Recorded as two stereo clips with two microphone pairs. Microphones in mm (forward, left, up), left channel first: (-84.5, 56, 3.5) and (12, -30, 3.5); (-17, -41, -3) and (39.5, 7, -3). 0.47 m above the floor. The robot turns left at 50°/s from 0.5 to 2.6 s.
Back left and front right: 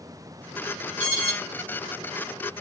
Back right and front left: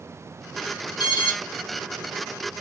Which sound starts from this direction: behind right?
An alarm, at 1.0 s.